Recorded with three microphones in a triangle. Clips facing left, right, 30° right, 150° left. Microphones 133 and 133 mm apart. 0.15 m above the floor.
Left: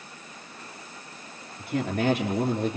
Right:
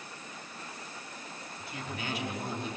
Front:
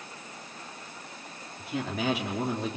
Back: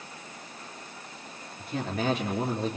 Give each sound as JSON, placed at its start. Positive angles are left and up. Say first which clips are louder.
{"t": 1.6, "sound": "a man speaking", "louder": "left 14 dB, back 1 dB", "azimuth_deg": 60, "distance_m": 3.0}